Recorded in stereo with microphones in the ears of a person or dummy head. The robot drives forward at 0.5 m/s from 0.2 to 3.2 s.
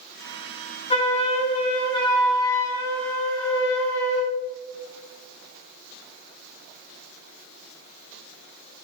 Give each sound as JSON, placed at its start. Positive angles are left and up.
{"t": 0.9, "sound": "a flute", "side_deg": 35, "distance_m": 1.2}